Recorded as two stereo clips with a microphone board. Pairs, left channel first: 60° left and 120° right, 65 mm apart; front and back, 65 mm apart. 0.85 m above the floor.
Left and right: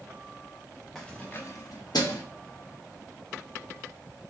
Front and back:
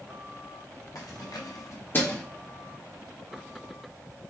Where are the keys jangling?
25° right, 0.9 m; by 2.2 s 70° left, 1.1 m.